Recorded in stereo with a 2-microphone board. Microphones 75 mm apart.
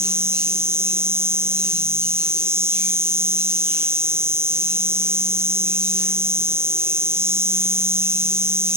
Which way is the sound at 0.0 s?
40° right (ahead or behind).